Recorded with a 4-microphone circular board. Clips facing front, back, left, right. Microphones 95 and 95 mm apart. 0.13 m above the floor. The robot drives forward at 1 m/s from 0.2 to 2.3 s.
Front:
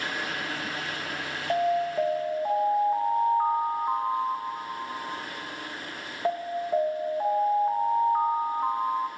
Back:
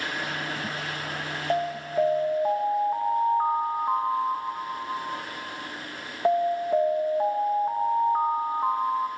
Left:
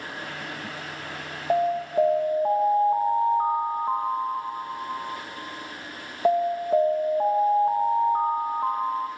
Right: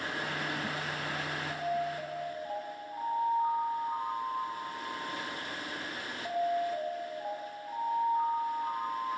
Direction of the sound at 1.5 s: 100° left.